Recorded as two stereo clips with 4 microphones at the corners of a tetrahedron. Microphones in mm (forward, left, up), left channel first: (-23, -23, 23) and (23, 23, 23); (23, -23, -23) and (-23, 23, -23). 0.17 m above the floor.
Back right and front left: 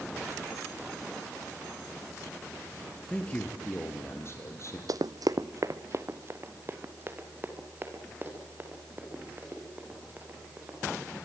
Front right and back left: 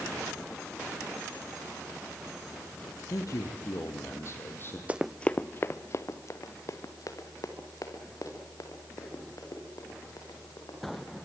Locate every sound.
3.1 s a man speaking: 60° right, 3 m; by 4.8 s 95° right, 4.5 m
4.9 s running footsteps: 70° left, 0.5 m; by 11.2 s 20° right, 8 m